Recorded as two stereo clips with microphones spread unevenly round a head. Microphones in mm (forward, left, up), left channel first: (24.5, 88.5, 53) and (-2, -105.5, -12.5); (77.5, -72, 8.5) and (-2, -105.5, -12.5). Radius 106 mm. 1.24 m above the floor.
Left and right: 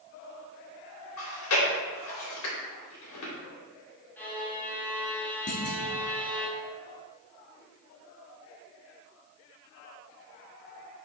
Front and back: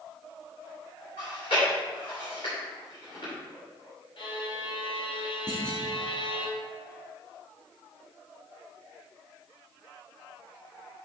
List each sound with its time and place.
1.2 s chewing: 80° left, 3 m
4.2 s a violin: 5° right, 1.6 m
5.5 s a clunk: 125° left, 1.3 m